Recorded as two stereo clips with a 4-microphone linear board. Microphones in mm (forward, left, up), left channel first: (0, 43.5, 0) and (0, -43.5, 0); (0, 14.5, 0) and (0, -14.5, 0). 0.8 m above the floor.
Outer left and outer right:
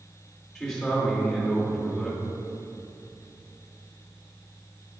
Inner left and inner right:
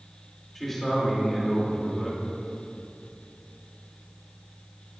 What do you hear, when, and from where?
0.6 s a man speaking: 5° left (ahead or behind), 2.5 m